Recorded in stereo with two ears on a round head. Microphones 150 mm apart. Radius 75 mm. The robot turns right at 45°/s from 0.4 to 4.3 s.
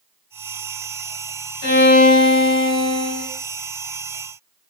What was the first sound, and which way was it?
A violin, 100° left.